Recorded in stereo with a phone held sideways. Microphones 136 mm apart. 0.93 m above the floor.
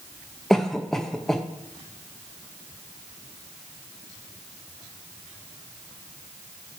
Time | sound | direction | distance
0.5 | a cough | 5° left (ahead or behind) | 0.6 m